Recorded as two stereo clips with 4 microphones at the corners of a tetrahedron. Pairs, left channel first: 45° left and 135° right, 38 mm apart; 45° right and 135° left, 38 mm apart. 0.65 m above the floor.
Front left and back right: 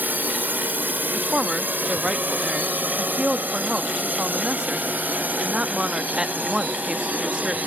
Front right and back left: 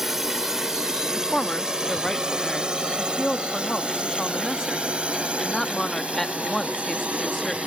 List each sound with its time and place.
0.0 s a drone: 145° right; by 7.7 s 175° right
1.1 s a woman speaking: 115° right